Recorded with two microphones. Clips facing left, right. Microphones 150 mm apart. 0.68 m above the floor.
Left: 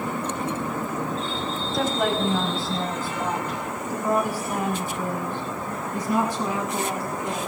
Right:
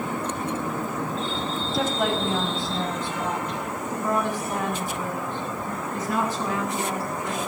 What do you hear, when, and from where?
1.7 s a woman speaking: centre (ahead or behind), 5 m; by 7.4 s 15° left (ahead or behind), 8.5 m